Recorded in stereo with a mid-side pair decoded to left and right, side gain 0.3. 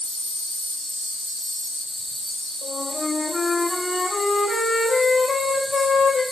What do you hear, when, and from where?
0.0 s an insect: 15° left, 1.9 m
2.6 s a flute: 55° left, 4.5 m